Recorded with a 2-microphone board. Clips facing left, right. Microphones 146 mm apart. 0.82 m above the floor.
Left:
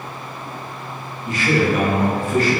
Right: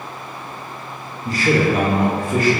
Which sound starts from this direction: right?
A man speaking, at 1.2 s.